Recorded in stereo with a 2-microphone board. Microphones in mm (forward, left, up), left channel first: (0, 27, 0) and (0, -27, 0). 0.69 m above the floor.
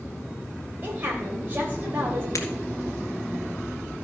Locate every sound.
0.8 s a woman speaking: 35° right (ahead or behind), 3 m
2.4 s breaking glass: 75° left (ahead or behind), 2.0 m